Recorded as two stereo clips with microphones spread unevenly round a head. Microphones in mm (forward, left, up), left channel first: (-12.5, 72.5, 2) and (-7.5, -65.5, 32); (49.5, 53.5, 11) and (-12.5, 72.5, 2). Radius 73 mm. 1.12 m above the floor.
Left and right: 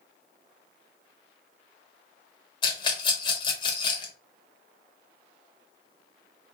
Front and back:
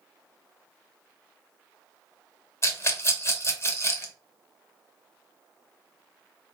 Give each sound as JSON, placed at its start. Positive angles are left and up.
{"t": 2.6, "sound": "a rattle", "azimuth_deg": 35, "distance_m": 1.0}